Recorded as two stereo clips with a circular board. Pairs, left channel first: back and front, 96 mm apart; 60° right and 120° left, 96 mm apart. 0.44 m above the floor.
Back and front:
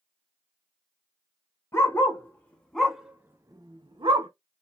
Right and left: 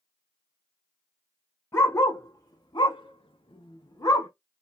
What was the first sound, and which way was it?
A dog barking, 120° right.